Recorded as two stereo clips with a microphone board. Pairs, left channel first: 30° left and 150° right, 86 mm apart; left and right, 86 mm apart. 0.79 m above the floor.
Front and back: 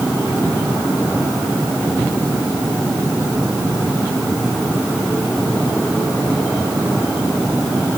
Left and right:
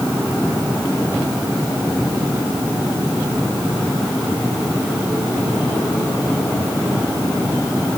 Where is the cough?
I don't hear a cough.